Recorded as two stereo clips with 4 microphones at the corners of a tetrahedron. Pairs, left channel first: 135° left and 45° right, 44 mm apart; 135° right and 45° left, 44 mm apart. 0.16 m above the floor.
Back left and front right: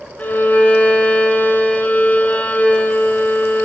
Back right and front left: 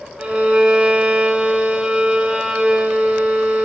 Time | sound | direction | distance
0.2 | a violin | 105° left | 0.6 m